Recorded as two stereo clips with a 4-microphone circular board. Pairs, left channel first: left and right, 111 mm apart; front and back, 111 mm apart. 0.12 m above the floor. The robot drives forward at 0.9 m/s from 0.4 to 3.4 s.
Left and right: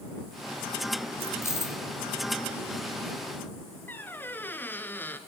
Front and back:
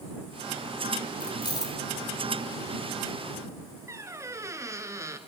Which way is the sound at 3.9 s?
145° left.